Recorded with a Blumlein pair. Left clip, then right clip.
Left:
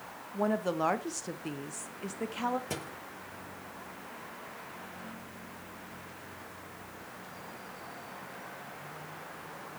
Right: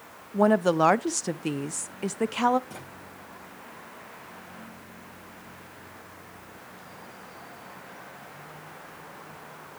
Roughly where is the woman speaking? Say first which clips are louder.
Right 9 dB; ahead right.